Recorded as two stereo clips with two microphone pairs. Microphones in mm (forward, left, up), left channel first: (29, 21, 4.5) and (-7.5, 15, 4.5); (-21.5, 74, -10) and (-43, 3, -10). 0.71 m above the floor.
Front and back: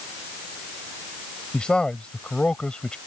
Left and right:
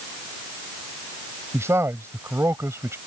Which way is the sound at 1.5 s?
55° right.